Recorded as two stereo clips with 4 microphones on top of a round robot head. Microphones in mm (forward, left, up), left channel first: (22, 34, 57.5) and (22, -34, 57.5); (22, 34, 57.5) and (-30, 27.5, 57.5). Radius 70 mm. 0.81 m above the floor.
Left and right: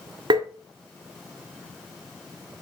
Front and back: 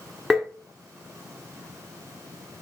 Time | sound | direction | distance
0.3 | tapping | 85° right | 1.2 m